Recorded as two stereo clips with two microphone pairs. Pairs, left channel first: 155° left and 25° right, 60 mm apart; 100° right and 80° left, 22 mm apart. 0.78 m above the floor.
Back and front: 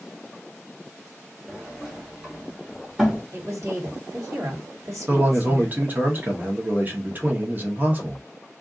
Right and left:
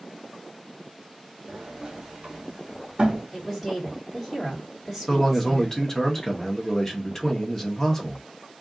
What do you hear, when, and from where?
1.5 s a sliding door: 50° left, 1.1 m
3.3 s a woman speaking: 5° right, 1.9 m
5.1 s a man speaking: 45° right, 1.0 m